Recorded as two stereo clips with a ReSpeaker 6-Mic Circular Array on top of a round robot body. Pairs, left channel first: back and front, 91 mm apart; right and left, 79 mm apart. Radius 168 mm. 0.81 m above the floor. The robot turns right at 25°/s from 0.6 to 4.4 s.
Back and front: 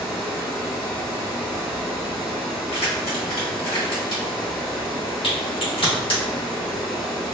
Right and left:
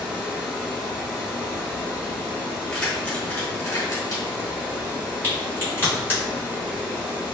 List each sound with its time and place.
0.0 s running water: 45° left, 0.7 m; by 7.3 s 140° left, 0.7 m
2.7 s keys jangling: 170° right, 1.6 m; by 4.5 s 130° right, 1.6 m
5.2 s a crack: 155° right, 1.5 m